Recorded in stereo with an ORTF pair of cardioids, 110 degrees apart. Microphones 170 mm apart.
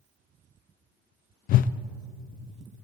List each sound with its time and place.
1.5 s a whoosh: 55° left, 0.5 m